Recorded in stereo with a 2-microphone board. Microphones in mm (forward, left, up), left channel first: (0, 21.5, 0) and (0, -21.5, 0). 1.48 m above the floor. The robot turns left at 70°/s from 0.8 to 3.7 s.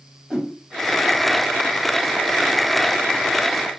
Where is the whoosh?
10° right (ahead or behind), 1.1 m.